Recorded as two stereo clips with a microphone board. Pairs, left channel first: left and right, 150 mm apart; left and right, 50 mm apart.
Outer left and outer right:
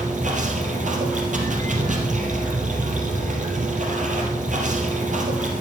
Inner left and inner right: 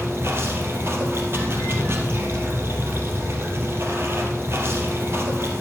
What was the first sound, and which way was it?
Running water, 55° right (ahead or behind).